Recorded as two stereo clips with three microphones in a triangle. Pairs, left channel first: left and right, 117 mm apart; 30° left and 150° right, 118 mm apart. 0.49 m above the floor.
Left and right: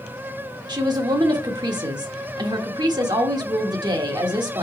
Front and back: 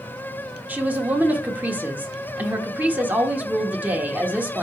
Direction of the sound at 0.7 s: 85° right.